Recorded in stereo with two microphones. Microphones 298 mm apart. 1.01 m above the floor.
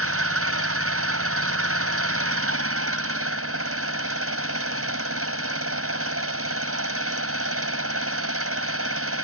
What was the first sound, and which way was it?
An engine running, 50° right (ahead or behind).